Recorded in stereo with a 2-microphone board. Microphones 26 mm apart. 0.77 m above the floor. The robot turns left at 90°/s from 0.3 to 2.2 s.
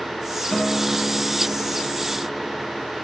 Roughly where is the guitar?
Centre.